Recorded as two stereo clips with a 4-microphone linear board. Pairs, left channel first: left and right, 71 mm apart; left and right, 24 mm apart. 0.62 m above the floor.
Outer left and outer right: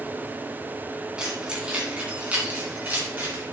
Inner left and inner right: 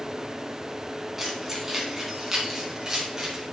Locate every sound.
1.2 s keys jangling: 10° right (ahead or behind), 3.5 m; by 3.4 s 25° right (ahead or behind), 4.5 m